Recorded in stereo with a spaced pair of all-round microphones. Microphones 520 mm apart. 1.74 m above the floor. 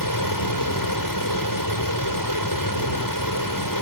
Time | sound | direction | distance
0.0 | a fan | 35° left (ahead or behind) | ?